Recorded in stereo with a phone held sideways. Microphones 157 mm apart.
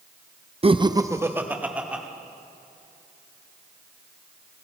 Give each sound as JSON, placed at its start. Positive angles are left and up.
{"t": 0.6, "sound": "laughter", "side_deg": -40, "distance_m": 0.5}